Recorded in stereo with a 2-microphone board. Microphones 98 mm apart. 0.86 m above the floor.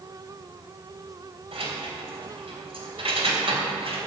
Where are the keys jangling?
80° right, 3 m.